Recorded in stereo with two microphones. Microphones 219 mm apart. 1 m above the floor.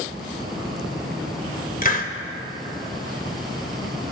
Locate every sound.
1.8 s a hiss: 40° left (ahead or behind), 0.9 m